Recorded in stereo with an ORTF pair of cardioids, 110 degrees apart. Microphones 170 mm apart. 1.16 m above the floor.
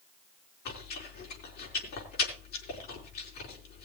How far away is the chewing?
About 5 m.